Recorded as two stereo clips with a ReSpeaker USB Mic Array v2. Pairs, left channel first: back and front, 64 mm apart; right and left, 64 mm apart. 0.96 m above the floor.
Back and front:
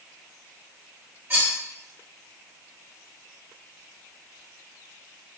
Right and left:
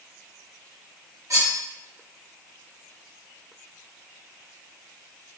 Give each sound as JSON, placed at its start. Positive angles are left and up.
{"t": 1.3, "sound": "cutlery clinking", "azimuth_deg": 55, "distance_m": 1.1}